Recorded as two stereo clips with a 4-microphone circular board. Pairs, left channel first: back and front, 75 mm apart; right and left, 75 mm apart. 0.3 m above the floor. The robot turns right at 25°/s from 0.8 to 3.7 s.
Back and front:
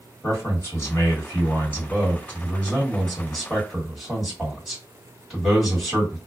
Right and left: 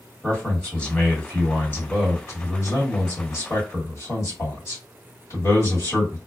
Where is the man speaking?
155° right, 1.9 m; by 6.2 s 85° right, 1.9 m.